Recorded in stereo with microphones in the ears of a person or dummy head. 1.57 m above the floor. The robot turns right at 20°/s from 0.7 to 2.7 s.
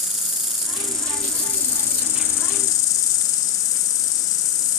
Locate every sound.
0.0 s an insect: 5° left, 1.8 m; by 4.8 s 45° left, 1.8 m